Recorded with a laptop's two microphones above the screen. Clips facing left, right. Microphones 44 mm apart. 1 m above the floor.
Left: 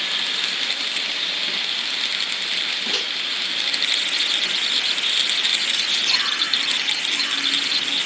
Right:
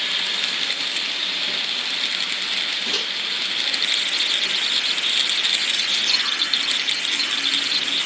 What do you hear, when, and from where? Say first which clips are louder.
2.9 s a microwave: even; 5° left (ahead or behind), 2.5 m
5.7 s whispering: even; 45° left (ahead or behind), 2 m